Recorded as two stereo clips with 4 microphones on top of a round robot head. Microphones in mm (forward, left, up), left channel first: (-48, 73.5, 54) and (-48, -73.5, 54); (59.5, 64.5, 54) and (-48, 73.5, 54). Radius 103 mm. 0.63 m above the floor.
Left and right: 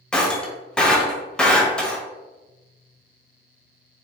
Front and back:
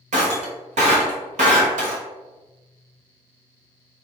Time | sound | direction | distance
0.1 | breaking glass | 175° left | 0.9 m